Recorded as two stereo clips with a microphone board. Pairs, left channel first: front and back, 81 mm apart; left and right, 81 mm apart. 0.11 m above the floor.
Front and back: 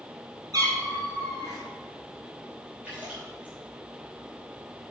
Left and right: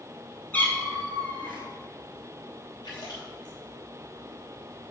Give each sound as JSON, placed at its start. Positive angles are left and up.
{"t": 0.5, "sound": "a cat meowing", "azimuth_deg": 155, "distance_m": 1.8}
{"t": 2.8, "sound": "a splash", "azimuth_deg": 110, "distance_m": 3.5}